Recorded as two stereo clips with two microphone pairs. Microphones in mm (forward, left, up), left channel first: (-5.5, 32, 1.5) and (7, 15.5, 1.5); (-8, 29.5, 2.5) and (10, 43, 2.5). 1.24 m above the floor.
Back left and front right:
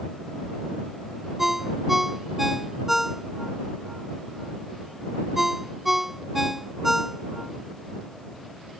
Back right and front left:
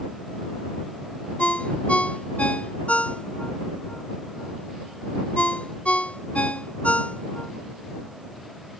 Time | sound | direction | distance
1.4 | a ringtone | 135° right | ?